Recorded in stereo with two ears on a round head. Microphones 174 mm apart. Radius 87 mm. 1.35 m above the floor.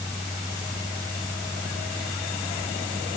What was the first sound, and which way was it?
Only background noise.